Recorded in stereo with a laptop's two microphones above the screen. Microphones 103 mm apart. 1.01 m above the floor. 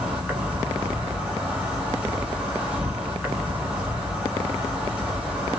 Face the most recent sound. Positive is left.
turn(degrees=-10)  # may be behind; listen again after turning